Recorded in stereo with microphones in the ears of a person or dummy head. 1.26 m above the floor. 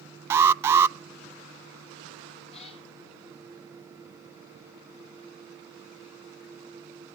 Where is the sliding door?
No sliding door in this recording.